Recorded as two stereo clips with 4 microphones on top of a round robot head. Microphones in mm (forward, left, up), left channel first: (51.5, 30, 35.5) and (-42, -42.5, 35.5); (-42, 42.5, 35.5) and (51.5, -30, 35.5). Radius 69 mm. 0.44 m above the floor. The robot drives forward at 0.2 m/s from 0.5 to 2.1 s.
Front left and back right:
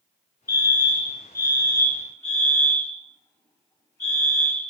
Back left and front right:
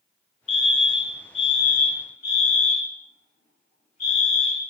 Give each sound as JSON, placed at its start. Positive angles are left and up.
{"t": 0.5, "sound": "a fire alarm", "azimuth_deg": 105, "distance_m": 6.0}